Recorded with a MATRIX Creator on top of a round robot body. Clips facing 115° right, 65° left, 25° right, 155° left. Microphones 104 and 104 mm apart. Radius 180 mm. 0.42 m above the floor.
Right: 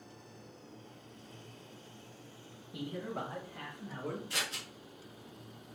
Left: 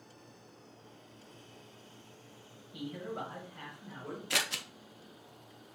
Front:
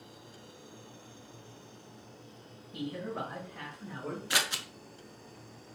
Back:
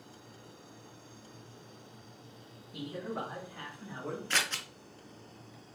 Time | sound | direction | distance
2.7 | a man speaking | 135° right | 1.9 m
4.3 | scissors | 55° left | 0.5 m